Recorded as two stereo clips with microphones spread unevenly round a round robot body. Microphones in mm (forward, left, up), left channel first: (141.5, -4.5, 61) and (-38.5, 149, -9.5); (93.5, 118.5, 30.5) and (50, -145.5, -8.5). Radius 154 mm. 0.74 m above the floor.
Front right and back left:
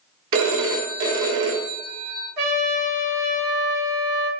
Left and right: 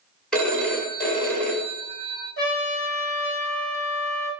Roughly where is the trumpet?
Behind left.